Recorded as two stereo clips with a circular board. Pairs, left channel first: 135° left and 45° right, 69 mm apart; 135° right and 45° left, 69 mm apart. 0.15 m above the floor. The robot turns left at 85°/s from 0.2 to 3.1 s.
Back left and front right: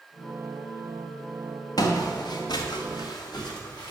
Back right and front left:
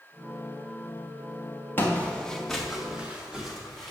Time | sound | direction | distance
1.8 | footsteps | 165° left | 1.7 m